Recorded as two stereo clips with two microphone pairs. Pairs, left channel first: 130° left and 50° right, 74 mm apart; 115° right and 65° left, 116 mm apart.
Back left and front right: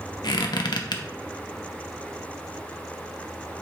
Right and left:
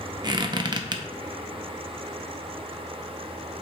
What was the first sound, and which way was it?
A squeak, 115° left.